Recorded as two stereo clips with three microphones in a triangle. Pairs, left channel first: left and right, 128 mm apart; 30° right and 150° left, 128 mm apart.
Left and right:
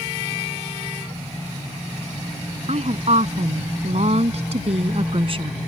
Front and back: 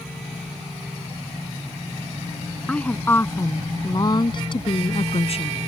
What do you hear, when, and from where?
2.7 s a woman speaking: 110° right; by 5.6 s 50° right